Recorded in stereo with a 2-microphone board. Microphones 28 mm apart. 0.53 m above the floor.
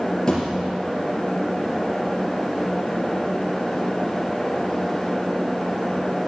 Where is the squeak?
No squeak in this recording.